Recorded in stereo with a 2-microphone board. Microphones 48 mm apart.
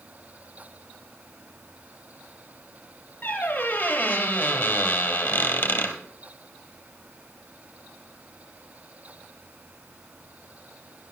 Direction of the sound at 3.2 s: 35° left (ahead or behind).